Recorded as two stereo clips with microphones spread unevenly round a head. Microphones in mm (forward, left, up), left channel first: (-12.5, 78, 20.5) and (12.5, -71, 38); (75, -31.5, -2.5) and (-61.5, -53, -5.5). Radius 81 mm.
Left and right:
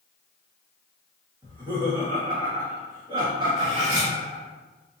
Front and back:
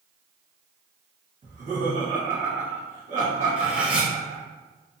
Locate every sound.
1.4 s laughter: 145° right, 1.4 m
3.6 s cutlery clinking: 90° right, 0.9 m